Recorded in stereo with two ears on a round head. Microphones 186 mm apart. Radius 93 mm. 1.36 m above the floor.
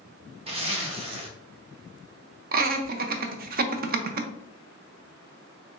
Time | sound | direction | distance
0.5 | a zipper | 30° right (ahead or behind) | 0.8 m
2.5 | laughter | 45° right (ahead or behind) | 0.6 m